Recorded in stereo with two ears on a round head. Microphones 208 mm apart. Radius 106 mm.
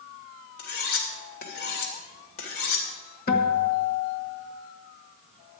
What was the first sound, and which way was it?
Cutlery clinking, 55° left (ahead or behind).